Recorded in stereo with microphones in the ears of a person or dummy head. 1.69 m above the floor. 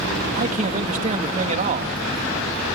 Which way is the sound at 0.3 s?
35° right (ahead or behind).